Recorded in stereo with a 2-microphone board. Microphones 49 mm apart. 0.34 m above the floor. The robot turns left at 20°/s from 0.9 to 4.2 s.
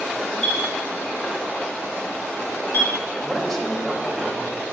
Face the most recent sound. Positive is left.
turn(degrees=0)  # may be behind; listen again after turning